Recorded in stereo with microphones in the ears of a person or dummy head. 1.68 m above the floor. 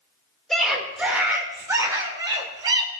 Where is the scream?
Centre (ahead or behind), 2.5 m; by 2.9 s 25° right (ahead or behind), 3 m.